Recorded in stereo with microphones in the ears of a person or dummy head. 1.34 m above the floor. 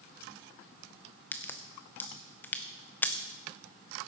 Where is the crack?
10° left (ahead or behind), 0.6 m.